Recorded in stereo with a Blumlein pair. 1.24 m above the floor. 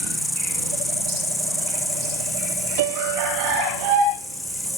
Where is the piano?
55° right.